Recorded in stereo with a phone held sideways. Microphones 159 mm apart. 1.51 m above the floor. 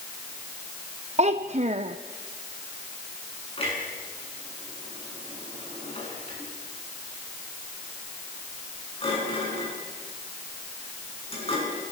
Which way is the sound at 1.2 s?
45° right (ahead or behind).